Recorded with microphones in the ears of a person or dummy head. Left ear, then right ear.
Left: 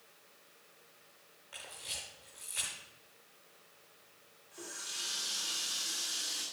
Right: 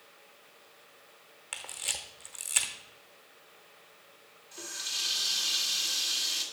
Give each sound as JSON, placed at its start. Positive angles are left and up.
{"t": 1.5, "sound": "a camera shutter", "side_deg": -40, "distance_m": 1.1}
{"t": 4.5, "sound": "a running tap", "side_deg": -40, "distance_m": 2.5}